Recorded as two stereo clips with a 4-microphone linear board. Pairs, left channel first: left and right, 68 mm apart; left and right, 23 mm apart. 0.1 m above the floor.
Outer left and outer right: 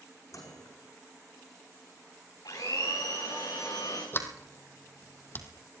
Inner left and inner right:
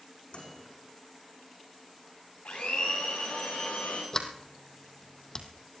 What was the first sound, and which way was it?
A microwave, 55° left (ahead or behind).